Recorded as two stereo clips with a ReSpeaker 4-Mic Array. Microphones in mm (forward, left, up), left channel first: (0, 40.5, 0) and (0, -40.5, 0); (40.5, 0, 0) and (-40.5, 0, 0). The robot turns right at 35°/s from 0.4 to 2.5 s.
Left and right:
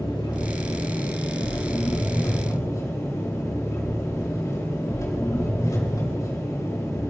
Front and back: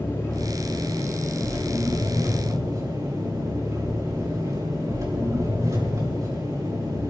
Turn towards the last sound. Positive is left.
turn(degrees=140)